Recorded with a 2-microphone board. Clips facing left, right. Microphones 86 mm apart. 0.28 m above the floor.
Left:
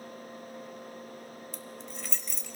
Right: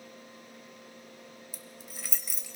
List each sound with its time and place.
1.5 s keys jangling: 5° right (ahead or behind), 0.9 m